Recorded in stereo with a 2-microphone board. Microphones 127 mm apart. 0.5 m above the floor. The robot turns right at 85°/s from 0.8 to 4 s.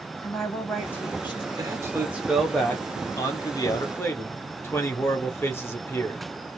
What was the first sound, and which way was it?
A woman speaking, 10° left.